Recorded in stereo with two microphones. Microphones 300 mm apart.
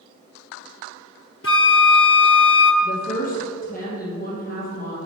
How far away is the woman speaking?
About 3 m.